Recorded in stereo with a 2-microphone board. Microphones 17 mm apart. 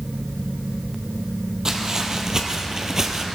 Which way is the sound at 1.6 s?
40° right (ahead or behind).